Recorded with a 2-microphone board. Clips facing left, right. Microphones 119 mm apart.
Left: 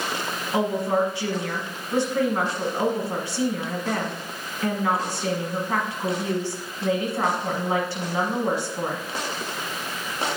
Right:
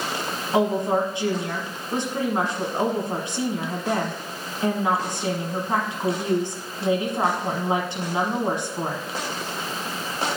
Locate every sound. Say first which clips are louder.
0.5 s a woman speaking: right 2 dB; 20° right (ahead or behind), 1.1 m